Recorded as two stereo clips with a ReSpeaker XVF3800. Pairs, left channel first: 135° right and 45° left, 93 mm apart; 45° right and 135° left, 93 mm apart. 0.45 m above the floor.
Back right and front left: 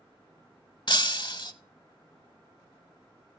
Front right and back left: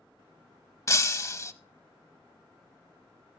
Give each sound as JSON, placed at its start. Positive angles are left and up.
{"t": 0.9, "sound": "breaking glass", "azimuth_deg": -100, "distance_m": 0.7}